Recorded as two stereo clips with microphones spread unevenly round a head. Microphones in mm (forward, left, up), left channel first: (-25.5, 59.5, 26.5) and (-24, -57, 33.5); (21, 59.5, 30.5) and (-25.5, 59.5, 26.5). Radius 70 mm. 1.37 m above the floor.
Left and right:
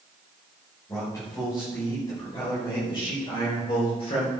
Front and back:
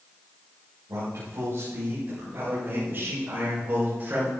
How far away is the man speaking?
About 7 m.